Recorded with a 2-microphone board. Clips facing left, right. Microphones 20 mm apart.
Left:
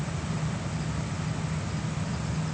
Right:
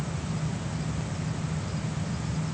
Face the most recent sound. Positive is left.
No sound to turn to.